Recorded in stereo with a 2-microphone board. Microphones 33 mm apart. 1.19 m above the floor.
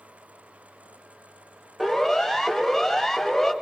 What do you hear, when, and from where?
1.8 s a siren: 5° right (ahead or behind), 5.5 m; by 3.5 s 5° left (ahead or behind), 6 m